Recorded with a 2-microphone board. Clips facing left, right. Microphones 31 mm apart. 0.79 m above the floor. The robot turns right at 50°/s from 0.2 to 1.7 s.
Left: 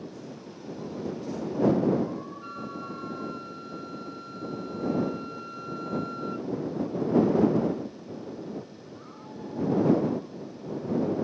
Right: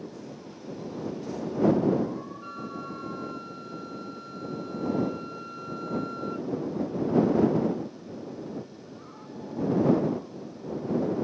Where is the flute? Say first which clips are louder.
Even; 5° left (ahead or behind).